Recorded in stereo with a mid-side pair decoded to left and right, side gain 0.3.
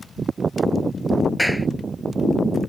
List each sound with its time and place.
1.4 s a clap: straight ahead